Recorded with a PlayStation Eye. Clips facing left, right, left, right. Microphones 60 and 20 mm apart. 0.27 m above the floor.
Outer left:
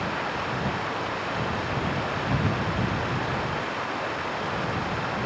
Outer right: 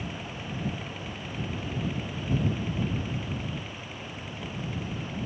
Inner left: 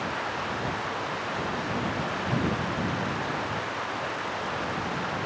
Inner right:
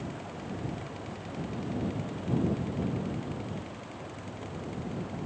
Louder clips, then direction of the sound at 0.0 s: Outer left 10 dB, inner left 10 dB; 90° left.